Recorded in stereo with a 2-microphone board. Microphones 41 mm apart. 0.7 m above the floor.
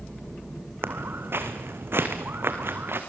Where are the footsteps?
70° right (ahead or behind), 2.5 m.